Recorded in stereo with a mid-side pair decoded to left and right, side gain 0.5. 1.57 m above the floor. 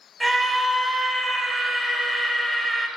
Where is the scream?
15° left, 2.5 m.